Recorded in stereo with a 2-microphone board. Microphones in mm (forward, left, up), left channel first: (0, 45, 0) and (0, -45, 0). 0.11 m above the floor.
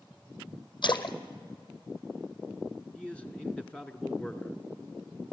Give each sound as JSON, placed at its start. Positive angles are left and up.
{"t": 0.8, "sound": "a splash", "side_deg": 60, "distance_m": 1.1}
{"t": 3.0, "sound": "a man speaking", "side_deg": 15, "distance_m": 1.1}